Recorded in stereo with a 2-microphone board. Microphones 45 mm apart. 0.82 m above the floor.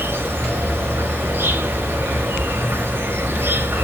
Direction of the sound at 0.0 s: 55° right (ahead or behind).